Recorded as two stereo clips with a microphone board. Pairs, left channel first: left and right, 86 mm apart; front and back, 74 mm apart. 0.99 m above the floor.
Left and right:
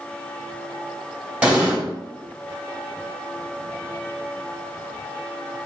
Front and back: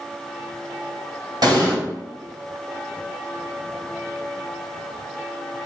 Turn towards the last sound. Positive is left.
turn(degrees=-165)